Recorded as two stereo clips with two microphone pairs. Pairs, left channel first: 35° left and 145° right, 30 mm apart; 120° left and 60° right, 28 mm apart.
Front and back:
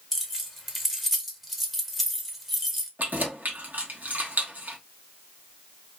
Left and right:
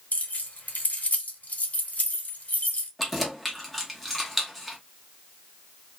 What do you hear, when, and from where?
0.1 s keys jangling: 125° left, 0.7 m
3.0 s keys jangling: 155° right, 0.9 m